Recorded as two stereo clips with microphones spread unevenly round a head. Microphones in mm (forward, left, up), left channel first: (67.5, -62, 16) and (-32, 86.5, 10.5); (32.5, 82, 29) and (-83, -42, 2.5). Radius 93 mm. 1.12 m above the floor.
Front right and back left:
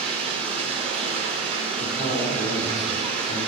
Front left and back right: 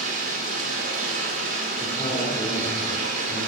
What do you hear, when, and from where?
0.0 s running water: 175° right, 2 m
1.8 s a man speaking: 5° right, 3.5 m